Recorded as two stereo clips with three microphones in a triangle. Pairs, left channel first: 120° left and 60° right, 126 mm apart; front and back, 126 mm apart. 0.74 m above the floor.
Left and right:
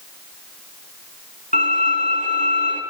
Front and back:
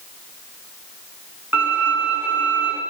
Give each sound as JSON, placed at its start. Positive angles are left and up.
{"t": 1.5, "sound": "a violin", "azimuth_deg": 105, "distance_m": 6.5}